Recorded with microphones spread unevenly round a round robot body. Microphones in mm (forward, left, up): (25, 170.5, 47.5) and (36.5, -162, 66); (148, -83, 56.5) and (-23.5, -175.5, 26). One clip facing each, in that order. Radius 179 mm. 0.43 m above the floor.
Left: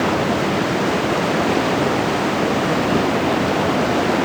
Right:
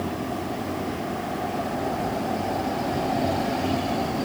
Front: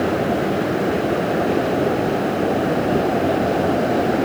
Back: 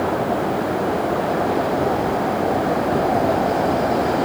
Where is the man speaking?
I don't hear a man speaking.